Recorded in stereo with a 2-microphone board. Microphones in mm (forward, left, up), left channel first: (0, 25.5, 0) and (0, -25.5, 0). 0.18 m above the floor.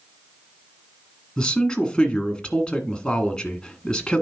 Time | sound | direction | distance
1.4 | a man speaking | 15° left (ahead or behind) | 1.6 m